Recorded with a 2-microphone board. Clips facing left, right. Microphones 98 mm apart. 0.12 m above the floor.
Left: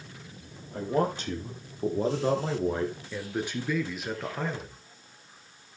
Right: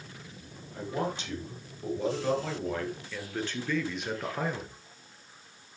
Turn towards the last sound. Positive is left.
turn(degrees=-15)  # may be behind; listen again after turning